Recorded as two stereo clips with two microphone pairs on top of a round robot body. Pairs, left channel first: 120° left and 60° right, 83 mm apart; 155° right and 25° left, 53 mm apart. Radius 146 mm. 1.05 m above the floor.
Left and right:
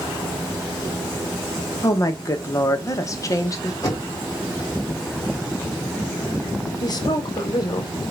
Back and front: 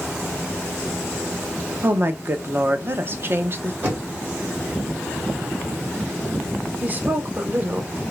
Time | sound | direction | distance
1.8 | a woman speaking | 70° left | 0.8 m
3.8 | knocking | 75° left | 2 m
6.8 | a woman speaking | 80° left | 1.0 m